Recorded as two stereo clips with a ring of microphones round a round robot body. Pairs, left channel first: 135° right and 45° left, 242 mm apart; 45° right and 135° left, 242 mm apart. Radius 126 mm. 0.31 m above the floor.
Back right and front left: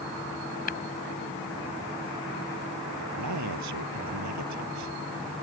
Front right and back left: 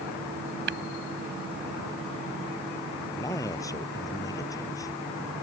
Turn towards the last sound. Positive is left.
turn(degrees=30)